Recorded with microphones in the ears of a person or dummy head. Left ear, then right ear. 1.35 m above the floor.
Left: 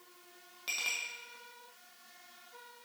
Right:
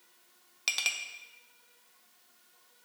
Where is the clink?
45° right (ahead or behind), 0.7 m.